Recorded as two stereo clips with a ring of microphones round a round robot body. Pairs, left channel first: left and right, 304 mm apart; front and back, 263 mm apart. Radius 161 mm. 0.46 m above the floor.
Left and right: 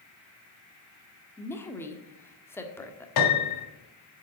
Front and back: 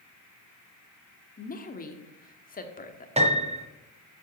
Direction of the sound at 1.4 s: 15° left.